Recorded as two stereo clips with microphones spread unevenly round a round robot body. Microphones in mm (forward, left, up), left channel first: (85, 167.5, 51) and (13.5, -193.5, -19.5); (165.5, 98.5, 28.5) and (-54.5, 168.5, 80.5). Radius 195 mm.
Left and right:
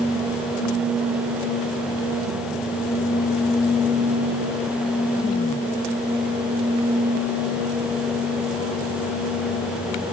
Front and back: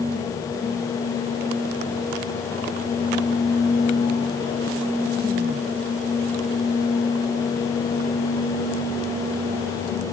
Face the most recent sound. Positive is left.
No sound to turn to.